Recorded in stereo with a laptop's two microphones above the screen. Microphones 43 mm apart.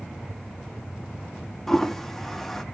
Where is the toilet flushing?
10° left (ahead or behind), 0.7 m.